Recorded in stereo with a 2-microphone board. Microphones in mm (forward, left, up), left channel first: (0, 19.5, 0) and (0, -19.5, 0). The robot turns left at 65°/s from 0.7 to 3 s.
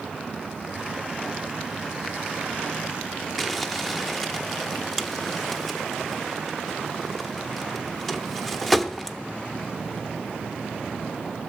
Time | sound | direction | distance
3.4 | crumpling | 5° left (ahead or behind) | 0.7 m